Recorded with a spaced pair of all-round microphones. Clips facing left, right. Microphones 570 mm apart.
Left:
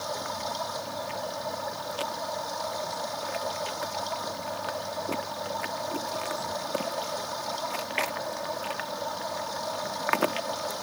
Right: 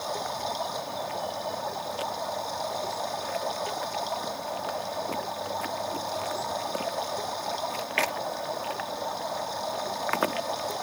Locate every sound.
0.0 s running water: 35° left (ahead or behind)